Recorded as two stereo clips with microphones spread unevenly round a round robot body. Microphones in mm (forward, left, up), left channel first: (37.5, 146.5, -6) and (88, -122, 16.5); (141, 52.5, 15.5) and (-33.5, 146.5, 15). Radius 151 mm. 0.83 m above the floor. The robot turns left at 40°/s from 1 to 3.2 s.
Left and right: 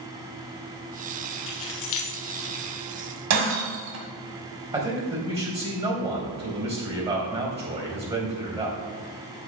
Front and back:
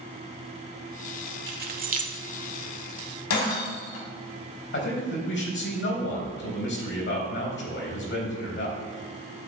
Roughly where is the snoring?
I don't hear snoring.